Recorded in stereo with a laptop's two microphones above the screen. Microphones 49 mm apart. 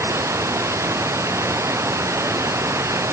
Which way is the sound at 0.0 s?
75° right (ahead or behind).